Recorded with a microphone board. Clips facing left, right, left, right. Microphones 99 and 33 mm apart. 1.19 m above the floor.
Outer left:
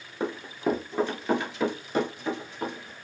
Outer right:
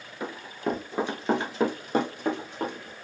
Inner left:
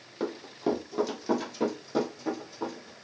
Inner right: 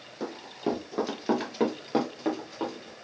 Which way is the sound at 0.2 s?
25° left (ahead or behind).